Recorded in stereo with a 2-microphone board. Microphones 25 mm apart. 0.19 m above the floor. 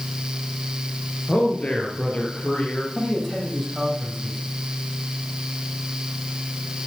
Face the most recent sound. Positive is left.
turn(degrees=10)  # may be behind; listen again after turning